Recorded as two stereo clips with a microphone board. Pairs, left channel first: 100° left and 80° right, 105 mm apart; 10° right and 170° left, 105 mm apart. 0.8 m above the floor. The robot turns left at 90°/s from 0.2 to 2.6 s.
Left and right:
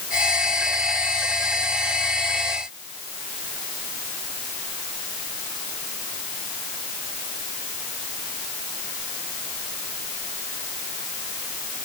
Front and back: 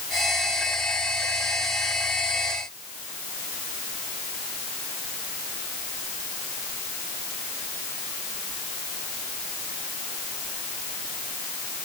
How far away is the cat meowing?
No cat meowing in this recording.